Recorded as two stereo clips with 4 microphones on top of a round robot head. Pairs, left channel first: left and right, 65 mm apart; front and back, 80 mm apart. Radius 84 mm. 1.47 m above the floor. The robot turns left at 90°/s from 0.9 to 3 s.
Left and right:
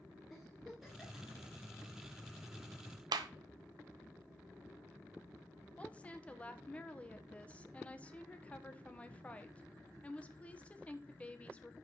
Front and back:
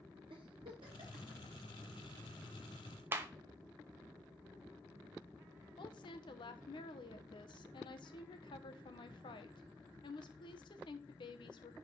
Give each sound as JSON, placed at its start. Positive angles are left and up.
{"t": 0.3, "sound": "a giggle", "azimuth_deg": 180, "distance_m": 1.9}
{"t": 3.1, "sound": "a clap", "azimuth_deg": -110, "distance_m": 0.6}
{"t": 5.8, "sound": "a woman speaking", "azimuth_deg": 20, "distance_m": 1.0}